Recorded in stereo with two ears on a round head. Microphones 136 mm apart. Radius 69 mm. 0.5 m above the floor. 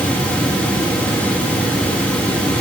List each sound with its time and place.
Only background noise.